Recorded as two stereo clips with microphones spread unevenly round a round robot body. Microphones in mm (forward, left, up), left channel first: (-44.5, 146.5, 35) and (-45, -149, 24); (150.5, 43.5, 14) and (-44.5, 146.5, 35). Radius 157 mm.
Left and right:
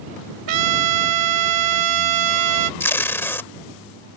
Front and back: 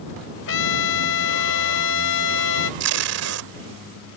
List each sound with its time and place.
0.5 s a trumpet: 70° right
2.8 s tape being pulled: 175° left